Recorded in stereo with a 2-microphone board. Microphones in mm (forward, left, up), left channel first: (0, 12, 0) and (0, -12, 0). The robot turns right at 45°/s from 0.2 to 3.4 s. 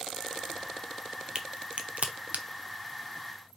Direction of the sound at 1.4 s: 35° right (ahead or behind).